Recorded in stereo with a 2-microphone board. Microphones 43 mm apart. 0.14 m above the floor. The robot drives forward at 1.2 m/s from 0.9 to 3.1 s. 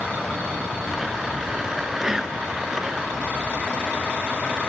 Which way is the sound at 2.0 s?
10° right (ahead or behind).